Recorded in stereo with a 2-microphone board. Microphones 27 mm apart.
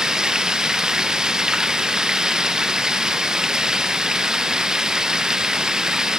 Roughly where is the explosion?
I don't hear an explosion.